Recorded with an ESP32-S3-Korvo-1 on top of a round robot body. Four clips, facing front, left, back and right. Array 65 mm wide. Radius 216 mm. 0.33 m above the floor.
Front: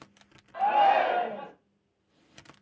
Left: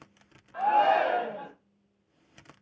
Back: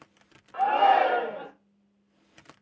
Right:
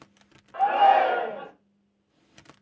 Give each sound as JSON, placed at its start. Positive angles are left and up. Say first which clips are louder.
{"t": 0.5, "sound": "a shout", "louder": "right 4 dB, back 1 dB", "azimuth_deg": -130, "distance_m": 1.8}